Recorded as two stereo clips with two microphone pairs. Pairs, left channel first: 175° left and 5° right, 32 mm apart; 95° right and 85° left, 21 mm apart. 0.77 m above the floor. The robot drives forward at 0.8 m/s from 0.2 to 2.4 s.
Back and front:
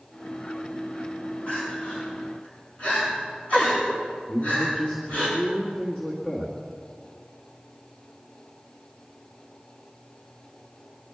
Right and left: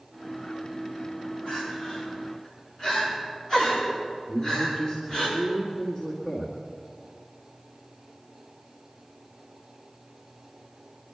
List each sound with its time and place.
1.5 s crying: 140° right, 7 m; by 5.3 s 145° right, 7.5 m
4.3 s a man speaking: 125° right, 2.0 m